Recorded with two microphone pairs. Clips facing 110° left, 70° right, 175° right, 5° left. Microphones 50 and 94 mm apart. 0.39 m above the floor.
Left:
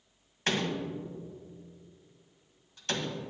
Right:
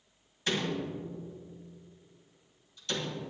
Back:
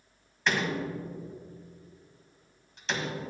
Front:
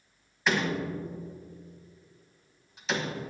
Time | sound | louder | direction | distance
0.5 | a door slam | left 1 dB, front 1 dB | 90° left | 1.5 m